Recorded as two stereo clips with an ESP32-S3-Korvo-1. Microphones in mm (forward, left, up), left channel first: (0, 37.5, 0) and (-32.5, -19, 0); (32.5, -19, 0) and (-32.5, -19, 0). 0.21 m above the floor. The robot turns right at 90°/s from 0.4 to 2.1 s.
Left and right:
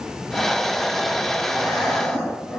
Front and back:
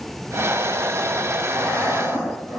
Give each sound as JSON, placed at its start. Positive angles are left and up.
{"t": 1.5, "sound": "breathing", "azimuth_deg": 55, "distance_m": 1.8}